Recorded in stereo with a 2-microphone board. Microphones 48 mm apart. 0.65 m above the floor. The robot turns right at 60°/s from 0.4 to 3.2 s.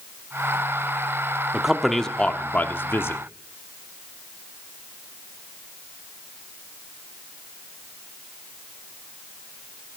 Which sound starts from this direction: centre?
A man speaking, at 1.5 s.